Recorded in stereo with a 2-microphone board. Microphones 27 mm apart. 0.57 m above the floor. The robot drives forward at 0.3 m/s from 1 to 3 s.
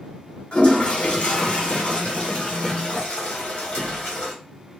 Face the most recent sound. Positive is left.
turn(degrees=45)  # may be behind; listen again after turning